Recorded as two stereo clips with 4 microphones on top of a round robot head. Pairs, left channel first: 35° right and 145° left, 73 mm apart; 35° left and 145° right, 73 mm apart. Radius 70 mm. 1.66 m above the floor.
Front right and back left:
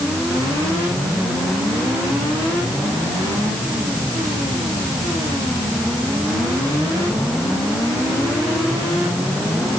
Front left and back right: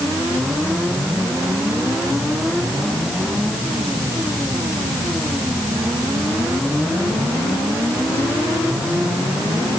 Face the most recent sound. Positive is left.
No sound to turn to.